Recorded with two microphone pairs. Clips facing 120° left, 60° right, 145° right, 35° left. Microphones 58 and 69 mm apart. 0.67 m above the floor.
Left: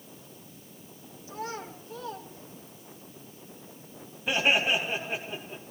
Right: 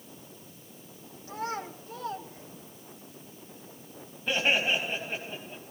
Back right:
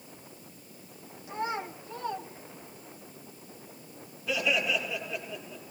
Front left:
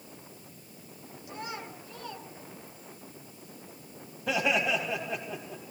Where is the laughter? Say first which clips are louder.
Left 2 dB, front left 2 dB; 35° left, 3.5 m.